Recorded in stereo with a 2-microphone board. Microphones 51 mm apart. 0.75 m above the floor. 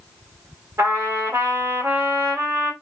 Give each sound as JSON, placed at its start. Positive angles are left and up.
{"t": 0.8, "sound": "a trumpet", "side_deg": -55, "distance_m": 1.4}